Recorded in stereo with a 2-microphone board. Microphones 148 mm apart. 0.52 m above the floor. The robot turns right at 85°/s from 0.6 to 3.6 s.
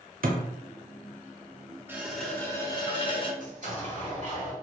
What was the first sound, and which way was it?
A thud, 75° right (ahead or behind).